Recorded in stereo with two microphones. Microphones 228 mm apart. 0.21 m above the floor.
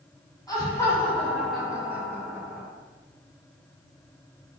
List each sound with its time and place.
0.5 s laughter: 15° left (ahead or behind), 2 m; by 2.7 s 20° right (ahead or behind), 1.8 m